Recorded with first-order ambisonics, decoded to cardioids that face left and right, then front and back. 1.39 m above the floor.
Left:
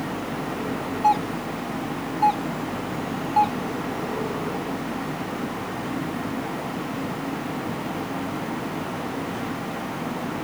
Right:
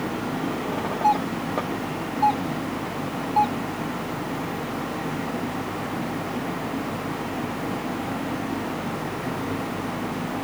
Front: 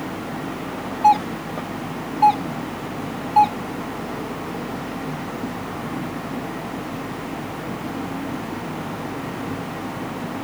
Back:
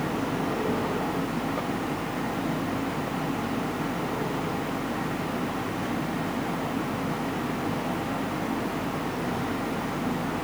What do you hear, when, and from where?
1.0 s a doorbell: 5° left